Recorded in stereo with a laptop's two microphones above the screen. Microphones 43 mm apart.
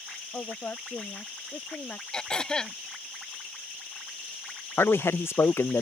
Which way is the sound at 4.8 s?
80° left.